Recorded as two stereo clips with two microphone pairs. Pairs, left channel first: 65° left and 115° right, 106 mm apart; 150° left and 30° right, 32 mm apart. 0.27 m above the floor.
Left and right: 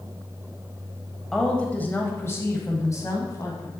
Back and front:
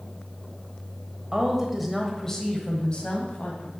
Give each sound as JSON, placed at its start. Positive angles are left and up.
{"t": 1.3, "sound": "a woman speaking", "azimuth_deg": -5, "distance_m": 1.0}